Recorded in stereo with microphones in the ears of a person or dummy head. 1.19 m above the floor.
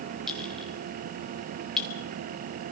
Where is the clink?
Centre (ahead or behind), 3 m.